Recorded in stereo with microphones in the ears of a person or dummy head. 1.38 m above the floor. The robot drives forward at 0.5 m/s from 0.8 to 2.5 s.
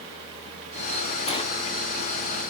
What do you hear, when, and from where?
1.3 s a sliding door: 30° left (ahead or behind), 0.6 m; by 1.4 s 25° left (ahead or behind), 0.6 m